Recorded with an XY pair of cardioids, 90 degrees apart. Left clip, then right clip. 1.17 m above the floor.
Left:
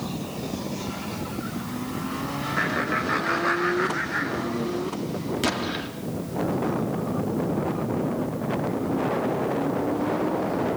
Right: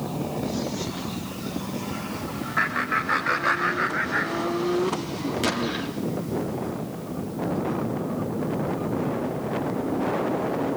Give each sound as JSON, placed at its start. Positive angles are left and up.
{"t": 2.6, "sound": "laughter", "azimuth_deg": -20, "distance_m": 5.0}
{"t": 5.4, "sound": "an explosion", "azimuth_deg": 5, "distance_m": 3.0}